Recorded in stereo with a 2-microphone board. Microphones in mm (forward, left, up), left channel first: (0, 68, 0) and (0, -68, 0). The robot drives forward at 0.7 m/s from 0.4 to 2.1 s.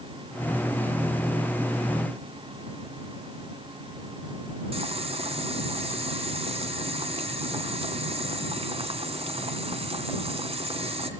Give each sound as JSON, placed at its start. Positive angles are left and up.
{"t": 4.7, "sound": "boiling", "side_deg": -45, "distance_m": 2.0}